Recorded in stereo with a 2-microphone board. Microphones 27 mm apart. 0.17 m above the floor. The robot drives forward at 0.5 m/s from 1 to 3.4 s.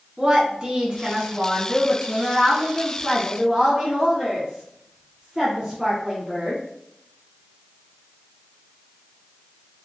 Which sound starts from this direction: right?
A woman speaking, at 0.2 s.